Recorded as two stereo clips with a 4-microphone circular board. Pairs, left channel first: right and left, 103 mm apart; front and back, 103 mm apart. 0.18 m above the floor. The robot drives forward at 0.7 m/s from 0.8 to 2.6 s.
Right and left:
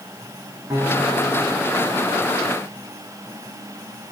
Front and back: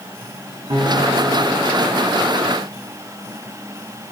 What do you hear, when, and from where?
0.7 s a guitar: 155° left, 7 m; by 2.5 s 160° left, 8 m